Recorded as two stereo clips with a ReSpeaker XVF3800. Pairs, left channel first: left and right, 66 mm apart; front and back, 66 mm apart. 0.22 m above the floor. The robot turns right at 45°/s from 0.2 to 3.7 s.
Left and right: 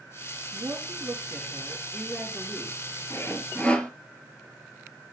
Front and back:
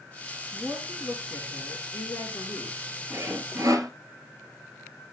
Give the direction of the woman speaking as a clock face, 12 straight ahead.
2 o'clock.